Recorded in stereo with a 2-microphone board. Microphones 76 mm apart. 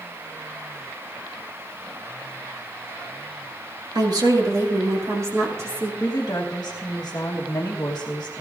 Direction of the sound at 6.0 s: 50° left (ahead or behind).